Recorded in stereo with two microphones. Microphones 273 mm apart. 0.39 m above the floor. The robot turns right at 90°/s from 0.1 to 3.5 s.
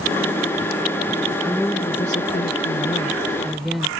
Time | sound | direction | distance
1.4 | a woman speaking | 5° right | ?